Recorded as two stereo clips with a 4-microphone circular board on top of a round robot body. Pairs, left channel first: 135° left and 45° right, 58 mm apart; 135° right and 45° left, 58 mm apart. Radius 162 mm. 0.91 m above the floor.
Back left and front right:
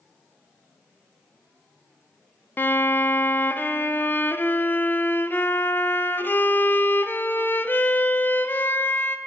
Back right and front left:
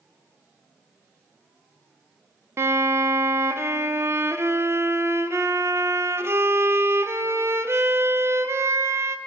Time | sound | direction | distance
2.6 | a violin | 85° left | 0.6 m